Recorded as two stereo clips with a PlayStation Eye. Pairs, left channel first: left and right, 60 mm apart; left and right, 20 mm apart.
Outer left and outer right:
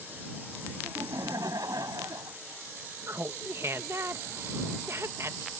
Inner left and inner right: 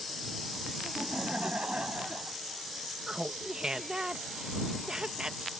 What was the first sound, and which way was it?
Laughter, 75° right (ahead or behind).